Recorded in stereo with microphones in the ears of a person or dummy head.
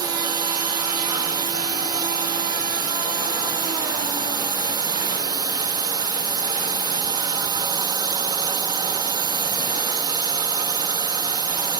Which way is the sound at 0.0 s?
20° right (ahead or behind).